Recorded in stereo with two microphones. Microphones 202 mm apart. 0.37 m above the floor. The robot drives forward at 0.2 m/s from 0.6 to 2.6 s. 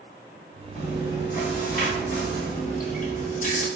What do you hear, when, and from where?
0.8 s chewing: 50° left (ahead or behind), 1.5 m; by 3.7 s 45° left (ahead or behind), 1.6 m